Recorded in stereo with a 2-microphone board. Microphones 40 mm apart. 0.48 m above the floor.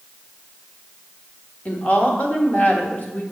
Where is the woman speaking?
40° left (ahead or behind), 1.2 m.